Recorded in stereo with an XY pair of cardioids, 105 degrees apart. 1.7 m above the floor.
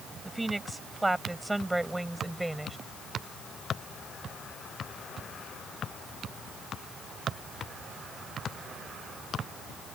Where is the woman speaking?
15° right; by 2.8 s 10° right.